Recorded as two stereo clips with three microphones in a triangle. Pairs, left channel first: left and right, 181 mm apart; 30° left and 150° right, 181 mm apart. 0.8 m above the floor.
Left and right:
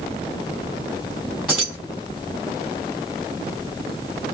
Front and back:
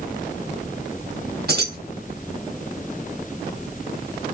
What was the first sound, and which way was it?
Keys jangling, 175° right.